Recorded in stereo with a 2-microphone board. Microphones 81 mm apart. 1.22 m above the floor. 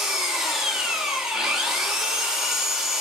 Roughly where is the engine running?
Centre.